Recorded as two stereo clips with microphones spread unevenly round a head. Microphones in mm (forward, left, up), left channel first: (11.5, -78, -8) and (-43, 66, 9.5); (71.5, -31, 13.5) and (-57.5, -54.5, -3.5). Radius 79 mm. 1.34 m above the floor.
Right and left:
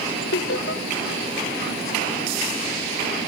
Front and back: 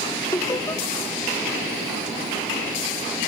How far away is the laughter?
About 1.6 m.